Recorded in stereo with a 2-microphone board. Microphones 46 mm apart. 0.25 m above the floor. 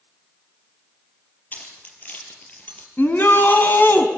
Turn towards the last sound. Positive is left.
turn(degrees=45)  # may be behind; listen again after turning